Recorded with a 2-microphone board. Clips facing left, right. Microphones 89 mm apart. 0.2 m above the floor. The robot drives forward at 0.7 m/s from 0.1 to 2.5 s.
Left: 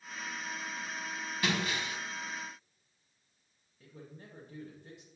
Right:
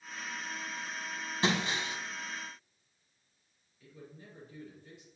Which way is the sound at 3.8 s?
65° left (ahead or behind).